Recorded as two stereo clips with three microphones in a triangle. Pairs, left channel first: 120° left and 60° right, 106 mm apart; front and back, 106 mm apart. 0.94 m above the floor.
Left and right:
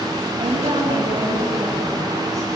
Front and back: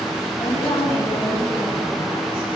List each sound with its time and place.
0.4 s a woman speaking: 70° right, 8.5 m